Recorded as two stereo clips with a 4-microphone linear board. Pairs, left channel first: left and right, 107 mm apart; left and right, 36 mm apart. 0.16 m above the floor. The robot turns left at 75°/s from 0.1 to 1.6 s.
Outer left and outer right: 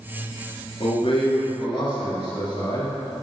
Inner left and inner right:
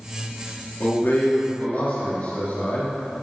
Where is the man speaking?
120° left, 2.5 m; by 2.9 s 60° left, 2.5 m.